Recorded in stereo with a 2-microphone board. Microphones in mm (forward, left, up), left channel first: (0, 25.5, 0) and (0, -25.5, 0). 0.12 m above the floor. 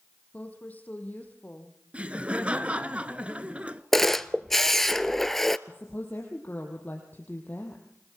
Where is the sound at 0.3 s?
30° left (ahead or behind), 4 m.